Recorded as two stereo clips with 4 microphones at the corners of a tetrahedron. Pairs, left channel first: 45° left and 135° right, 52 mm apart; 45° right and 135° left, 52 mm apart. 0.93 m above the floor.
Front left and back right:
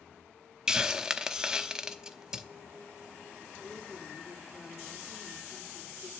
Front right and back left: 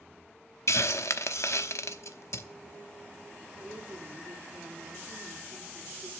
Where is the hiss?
60° right, 0.7 m.